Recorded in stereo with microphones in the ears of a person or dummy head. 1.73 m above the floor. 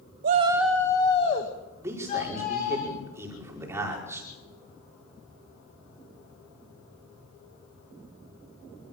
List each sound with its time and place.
0.2 s a shout: 40° right (ahead or behind), 0.8 m; by 2.8 s 40° left (ahead or behind), 4 m
1.8 s a man speaking: 15° right (ahead or behind), 5.5 m